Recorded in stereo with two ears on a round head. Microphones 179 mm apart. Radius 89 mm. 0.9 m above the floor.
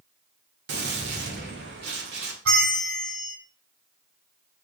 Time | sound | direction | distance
0.7 | a gunshot | 55° right (ahead or behind) | 2.0 m
2.5 | a bell | 70° right (ahead or behind) | 3 m